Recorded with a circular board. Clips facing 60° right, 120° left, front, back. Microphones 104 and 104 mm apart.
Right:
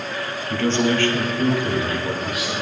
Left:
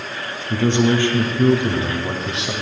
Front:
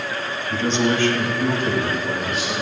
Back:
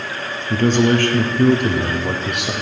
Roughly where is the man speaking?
Behind.